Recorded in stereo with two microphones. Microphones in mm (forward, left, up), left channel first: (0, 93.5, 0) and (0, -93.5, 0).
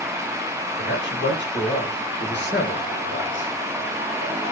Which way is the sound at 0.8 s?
80° left.